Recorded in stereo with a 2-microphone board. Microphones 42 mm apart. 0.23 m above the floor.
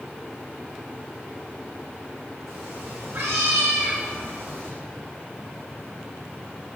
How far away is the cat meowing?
About 8 m.